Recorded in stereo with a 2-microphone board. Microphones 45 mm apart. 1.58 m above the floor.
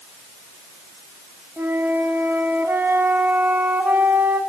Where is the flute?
50° right (ahead or behind), 1.9 m.